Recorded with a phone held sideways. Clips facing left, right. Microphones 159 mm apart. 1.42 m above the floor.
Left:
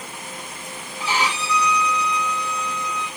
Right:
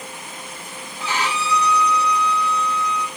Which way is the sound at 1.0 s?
10° left (ahead or behind).